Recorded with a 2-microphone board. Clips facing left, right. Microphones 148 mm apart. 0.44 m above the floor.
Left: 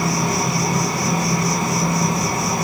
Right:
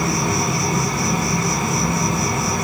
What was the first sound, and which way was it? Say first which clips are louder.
An insect: even; 35° left (ahead or behind).